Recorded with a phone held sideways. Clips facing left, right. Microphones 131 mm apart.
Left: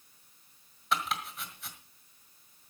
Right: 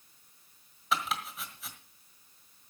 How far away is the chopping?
About 1.6 m.